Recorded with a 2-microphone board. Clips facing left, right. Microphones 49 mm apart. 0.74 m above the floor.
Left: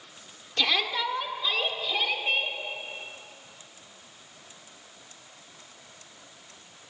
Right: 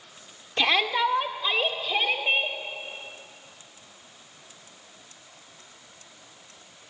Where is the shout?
30° right (ahead or behind), 1.5 m; by 2.6 s 25° right (ahead or behind), 3.5 m.